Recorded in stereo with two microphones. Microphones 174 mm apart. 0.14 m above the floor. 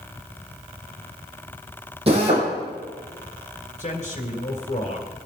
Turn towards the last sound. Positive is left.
turn(degrees=40)  # may be behind; listen again after turning